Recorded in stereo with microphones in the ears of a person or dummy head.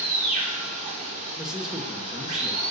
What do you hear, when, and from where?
0.0 s running water: 35° right (ahead or behind), 1.3 m
1.4 s a man speaking: centre (ahead or behind), 1.0 m